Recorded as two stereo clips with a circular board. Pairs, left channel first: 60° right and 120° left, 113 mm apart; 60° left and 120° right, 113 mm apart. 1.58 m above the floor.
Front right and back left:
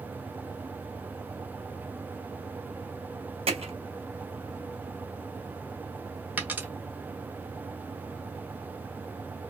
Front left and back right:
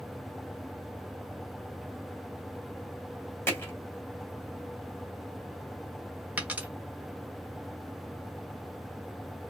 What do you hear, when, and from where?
3.5 s hammering: 125° left, 2.5 m
6.4 s a dropped coin: straight behind, 1.4 m